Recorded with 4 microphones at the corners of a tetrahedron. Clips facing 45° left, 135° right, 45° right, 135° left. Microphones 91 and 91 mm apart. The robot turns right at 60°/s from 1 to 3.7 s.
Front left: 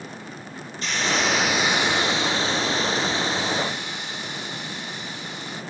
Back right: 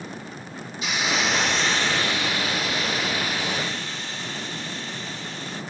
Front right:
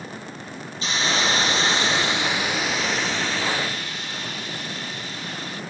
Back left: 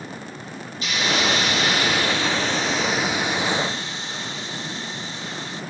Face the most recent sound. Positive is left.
turn(degrees=100)